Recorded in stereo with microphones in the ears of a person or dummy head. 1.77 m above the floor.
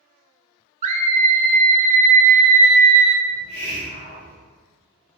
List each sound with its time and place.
0.8 s a scream: 45° right (ahead or behind), 0.5 m
3.3 s a hiss: 25° right (ahead or behind), 0.8 m